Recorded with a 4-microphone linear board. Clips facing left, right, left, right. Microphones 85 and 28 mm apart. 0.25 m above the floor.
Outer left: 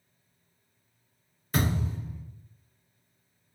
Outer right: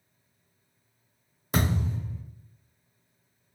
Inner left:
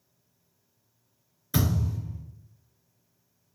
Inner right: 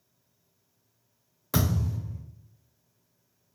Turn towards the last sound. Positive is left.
turn(degrees=-80)